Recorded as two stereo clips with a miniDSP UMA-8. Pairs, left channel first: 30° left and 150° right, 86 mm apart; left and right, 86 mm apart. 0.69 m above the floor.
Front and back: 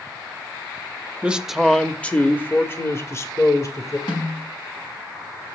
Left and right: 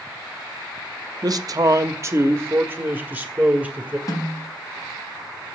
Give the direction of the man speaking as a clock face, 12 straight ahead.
3 o'clock.